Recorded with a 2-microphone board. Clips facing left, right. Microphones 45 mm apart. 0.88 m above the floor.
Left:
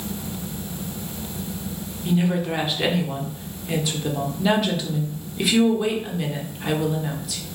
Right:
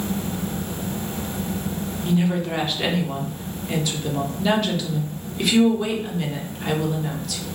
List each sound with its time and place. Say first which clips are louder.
2.0 s a woman speaking: even; 5° left (ahead or behind), 0.6 m